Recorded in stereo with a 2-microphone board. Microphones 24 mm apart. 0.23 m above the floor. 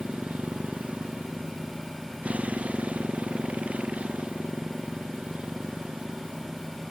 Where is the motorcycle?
85° right; by 6.9 s 80° right.